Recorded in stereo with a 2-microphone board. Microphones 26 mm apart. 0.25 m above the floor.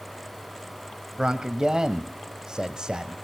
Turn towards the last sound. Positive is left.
turn(degrees=-25)  # may be behind; listen again after turning